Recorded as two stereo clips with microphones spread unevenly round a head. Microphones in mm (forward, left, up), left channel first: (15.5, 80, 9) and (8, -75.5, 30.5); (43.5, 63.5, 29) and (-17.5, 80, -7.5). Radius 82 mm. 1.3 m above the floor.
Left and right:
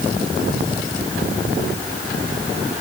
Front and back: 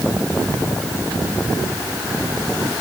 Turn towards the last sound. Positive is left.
No sound to turn to.